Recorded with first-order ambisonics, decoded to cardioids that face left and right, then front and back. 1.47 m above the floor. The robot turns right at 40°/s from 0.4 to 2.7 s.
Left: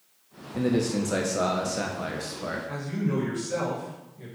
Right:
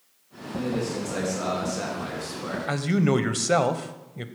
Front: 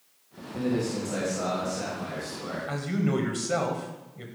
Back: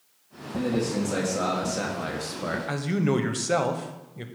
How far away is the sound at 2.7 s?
About 0.8 m.